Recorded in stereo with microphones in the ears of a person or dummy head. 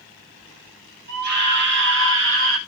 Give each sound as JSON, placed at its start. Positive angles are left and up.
{"t": 1.1, "sound": "a scream", "side_deg": -55, "distance_m": 2.5}